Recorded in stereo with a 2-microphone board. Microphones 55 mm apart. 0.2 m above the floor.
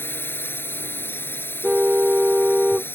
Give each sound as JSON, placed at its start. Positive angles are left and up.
{"t": 0.0, "sound": "a drone", "side_deg": 40}
{"t": 1.6, "sound": "a car horn", "side_deg": -15}